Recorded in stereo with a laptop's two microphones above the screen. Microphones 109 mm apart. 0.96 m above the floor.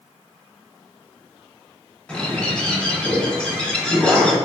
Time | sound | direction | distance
2.1 | a bird | 10° left (ahead or behind) | 0.8 m